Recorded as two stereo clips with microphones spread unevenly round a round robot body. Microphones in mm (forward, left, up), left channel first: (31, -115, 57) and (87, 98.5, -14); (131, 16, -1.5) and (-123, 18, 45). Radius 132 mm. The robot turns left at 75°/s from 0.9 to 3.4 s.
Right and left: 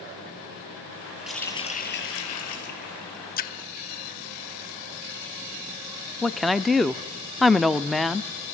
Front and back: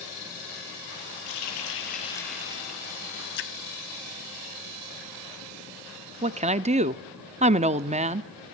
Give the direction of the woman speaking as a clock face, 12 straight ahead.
8 o'clock.